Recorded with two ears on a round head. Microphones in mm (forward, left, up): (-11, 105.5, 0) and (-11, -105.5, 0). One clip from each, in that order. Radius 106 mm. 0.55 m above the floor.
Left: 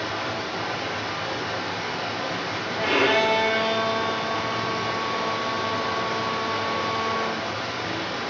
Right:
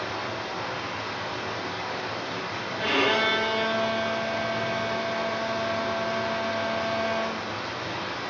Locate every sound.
0.0 s running water: 30° left (ahead or behind), 1.0 m
2.8 s a violin: 5° right (ahead or behind), 0.6 m